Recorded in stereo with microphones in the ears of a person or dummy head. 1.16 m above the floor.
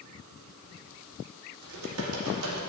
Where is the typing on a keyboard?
85° right, 1.8 m.